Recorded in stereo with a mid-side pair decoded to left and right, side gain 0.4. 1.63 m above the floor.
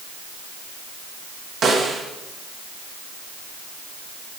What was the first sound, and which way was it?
A snare drum, 60° right.